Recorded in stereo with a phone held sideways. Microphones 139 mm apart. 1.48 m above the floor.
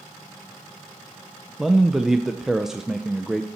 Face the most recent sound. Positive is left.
turn(degrees=-5)  # may be behind; listen again after turning